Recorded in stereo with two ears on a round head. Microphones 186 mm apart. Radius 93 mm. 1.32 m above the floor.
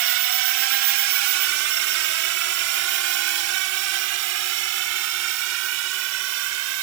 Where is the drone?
65° right (ahead or behind); by 6.8 s 80° right.